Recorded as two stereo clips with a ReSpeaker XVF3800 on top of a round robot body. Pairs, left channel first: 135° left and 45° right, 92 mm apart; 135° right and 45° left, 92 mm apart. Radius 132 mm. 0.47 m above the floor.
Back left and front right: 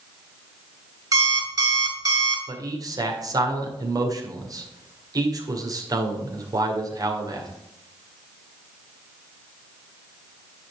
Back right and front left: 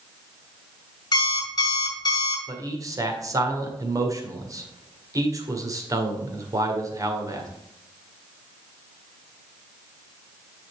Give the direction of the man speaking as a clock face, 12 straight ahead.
12 o'clock.